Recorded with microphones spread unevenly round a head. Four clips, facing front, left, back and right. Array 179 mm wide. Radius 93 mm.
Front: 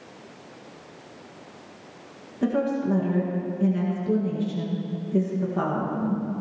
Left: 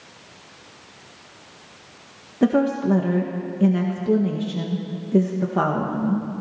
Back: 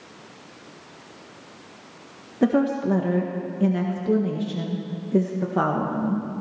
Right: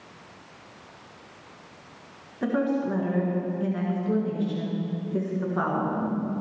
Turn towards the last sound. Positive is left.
turn(degrees=145)